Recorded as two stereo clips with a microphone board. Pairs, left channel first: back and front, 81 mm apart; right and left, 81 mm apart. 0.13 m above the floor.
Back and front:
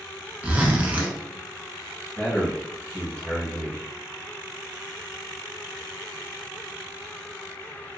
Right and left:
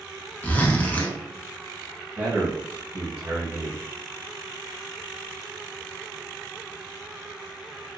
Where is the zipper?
50° right, 0.6 m.